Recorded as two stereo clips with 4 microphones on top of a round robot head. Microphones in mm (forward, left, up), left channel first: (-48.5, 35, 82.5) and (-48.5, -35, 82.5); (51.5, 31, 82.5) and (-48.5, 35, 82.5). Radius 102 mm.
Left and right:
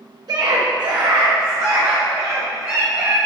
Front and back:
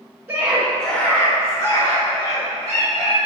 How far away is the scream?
About 1.2 m.